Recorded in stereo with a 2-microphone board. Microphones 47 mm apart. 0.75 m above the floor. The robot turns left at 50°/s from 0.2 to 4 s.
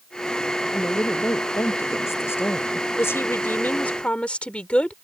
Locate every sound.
0.7 s a woman speaking: 140° left; by 2.9 s 35° left
3.0 s a woman speaking: 80° left; by 4.9 s 25° left